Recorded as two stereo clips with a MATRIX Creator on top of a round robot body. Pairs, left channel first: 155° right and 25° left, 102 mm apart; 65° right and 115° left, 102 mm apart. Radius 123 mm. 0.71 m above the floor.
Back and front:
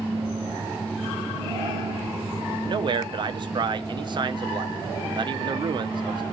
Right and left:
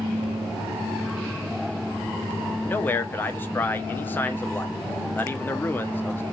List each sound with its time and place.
2.7 s a man speaking: straight ahead, 0.6 m